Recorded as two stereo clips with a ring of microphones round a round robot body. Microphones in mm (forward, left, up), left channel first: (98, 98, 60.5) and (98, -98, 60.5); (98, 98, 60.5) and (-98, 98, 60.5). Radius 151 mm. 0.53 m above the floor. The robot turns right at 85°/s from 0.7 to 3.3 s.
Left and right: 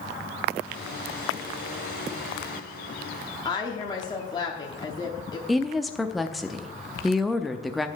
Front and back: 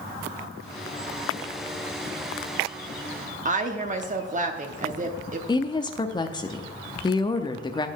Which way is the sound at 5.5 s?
Straight ahead.